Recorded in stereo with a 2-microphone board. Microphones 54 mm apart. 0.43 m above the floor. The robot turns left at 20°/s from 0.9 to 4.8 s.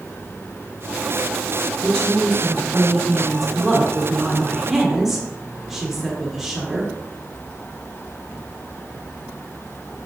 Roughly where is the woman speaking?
Centre.